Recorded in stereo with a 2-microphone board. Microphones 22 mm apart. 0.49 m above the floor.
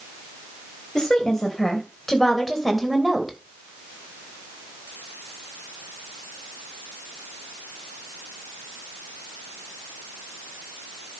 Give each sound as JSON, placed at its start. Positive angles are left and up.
{"t": 0.9, "sound": "a woman speaking", "side_deg": 35, "distance_m": 3.0}